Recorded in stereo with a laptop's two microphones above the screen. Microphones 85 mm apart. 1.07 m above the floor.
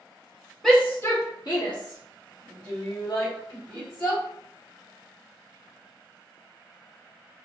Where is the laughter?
15° left (ahead or behind), 1.1 m.